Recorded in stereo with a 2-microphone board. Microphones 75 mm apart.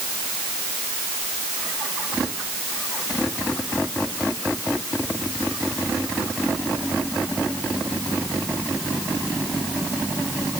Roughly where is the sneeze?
No sneeze in this recording.